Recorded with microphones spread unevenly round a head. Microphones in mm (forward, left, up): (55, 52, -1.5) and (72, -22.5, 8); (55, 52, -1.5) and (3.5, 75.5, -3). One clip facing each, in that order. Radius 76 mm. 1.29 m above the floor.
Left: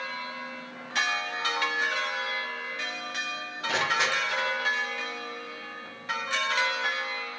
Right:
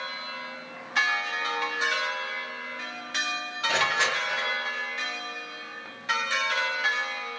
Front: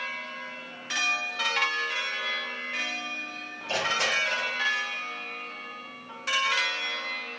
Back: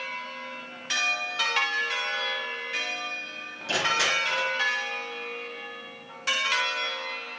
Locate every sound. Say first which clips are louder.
3.7 s crushing: right 1 dB, back 2 dB; 165° right, 3.5 m